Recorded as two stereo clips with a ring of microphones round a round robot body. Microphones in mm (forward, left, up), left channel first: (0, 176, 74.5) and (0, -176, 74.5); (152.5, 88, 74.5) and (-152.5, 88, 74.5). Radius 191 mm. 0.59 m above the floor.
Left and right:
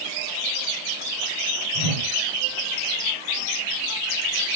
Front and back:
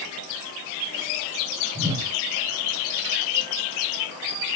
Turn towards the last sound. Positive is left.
turn(degrees=-100)